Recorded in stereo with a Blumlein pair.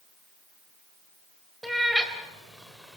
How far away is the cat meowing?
About 3 m.